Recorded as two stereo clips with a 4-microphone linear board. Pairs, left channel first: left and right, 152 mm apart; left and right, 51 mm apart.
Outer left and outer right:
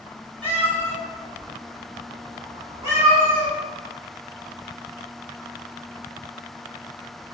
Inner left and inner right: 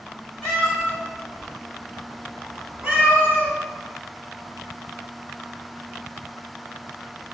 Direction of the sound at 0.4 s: 10° left (ahead or behind).